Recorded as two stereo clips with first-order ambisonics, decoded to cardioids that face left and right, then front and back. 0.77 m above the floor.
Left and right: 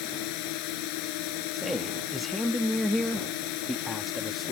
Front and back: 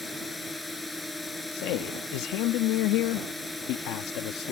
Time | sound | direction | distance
0.0 | a drone | 80° left | ?
1.5 | a man speaking | straight ahead | ?